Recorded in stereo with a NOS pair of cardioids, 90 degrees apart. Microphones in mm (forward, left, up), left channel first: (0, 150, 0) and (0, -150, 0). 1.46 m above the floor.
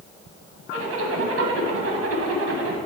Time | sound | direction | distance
0.7 | a zipper | 50° right | 1.4 m